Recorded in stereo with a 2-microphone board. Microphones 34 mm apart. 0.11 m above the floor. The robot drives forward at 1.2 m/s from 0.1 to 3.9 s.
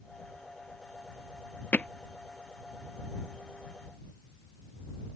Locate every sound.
1.7 s hammering: 50° left (ahead or behind); by 1.9 s 45° left (ahead or behind)